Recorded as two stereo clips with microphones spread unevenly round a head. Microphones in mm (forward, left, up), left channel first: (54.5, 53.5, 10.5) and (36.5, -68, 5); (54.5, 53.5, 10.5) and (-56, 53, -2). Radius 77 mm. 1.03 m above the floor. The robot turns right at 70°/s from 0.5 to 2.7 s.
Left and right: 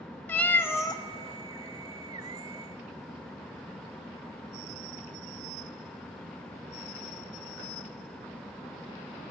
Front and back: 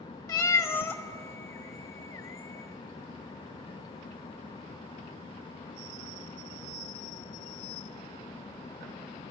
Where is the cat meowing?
20° left, 0.9 m; by 1.0 s 55° left, 0.9 m.